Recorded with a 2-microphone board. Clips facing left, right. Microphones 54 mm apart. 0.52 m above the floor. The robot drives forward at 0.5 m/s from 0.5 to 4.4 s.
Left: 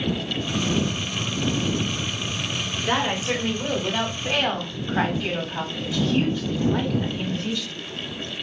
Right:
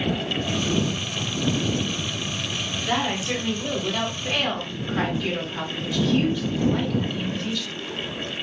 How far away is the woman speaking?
About 1.2 m.